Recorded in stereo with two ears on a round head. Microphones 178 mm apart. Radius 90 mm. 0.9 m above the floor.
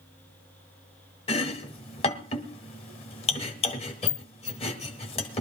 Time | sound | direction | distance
1.3 | chopping | 30° left (ahead or behind) | 1.5 m